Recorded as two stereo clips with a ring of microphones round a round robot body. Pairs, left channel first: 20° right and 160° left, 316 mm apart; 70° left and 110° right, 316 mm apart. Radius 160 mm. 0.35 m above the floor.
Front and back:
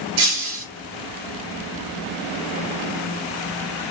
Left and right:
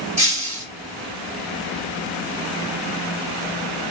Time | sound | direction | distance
0.2 | breaking glass | 175° left | 3.5 m